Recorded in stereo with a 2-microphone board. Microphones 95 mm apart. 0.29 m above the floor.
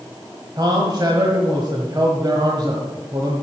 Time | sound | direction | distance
0.6 | a man speaking | 45° right (ahead or behind) | 1.4 m